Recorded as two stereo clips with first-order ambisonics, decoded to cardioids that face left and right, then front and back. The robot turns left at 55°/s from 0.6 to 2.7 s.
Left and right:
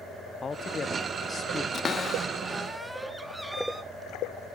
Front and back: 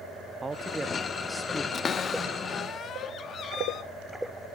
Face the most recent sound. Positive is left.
turn(degrees=-5)